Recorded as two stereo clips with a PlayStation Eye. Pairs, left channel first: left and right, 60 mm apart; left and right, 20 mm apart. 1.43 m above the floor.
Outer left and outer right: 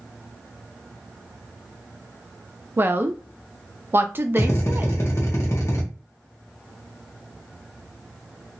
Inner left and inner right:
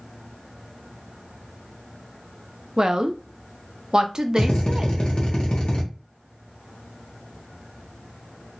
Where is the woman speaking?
35° right (ahead or behind), 0.5 m.